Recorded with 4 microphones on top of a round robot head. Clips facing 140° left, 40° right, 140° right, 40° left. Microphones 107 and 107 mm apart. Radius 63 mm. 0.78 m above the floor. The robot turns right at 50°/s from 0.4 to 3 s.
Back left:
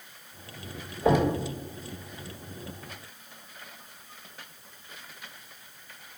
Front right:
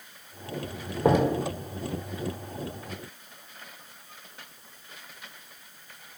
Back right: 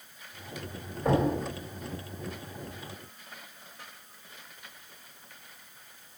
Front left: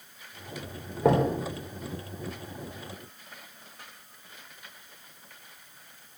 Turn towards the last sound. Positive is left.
turn(degrees=110)